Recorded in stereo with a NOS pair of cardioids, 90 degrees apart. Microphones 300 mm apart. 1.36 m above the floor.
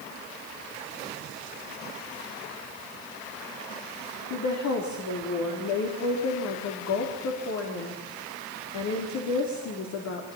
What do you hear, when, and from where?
4.3 s a woman speaking: 65° left, 3.5 m